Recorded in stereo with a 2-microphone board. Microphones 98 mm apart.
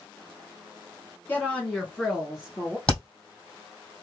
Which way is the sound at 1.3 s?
20° left (ahead or behind).